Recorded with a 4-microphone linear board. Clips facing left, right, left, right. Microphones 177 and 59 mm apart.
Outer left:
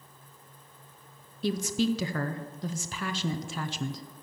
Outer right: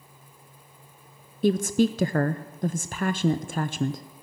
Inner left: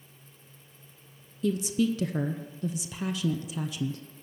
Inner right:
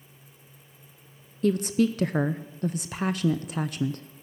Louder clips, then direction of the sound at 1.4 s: Outer right 6 dB, inner right 3 dB; 50° right (ahead or behind).